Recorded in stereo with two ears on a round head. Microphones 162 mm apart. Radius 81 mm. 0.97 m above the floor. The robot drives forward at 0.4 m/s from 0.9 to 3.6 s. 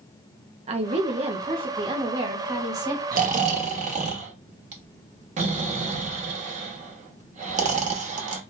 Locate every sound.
0.7 s a woman speaking: 35° right (ahead or behind), 0.6 m; by 3.0 s 20° right (ahead or behind), 1.1 m
3.1 s snoring: 50° right (ahead or behind), 0.8 m; by 8.4 s 40° right (ahead or behind), 1.0 m